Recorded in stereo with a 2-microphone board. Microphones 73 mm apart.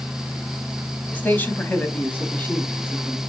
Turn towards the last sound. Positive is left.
turn(degrees=25)  # may be behind; listen again after turning